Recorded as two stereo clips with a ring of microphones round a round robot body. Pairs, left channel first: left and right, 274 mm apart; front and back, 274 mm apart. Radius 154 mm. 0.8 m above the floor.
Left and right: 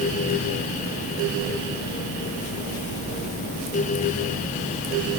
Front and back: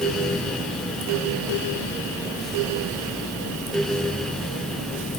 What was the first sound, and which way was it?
Only background noise.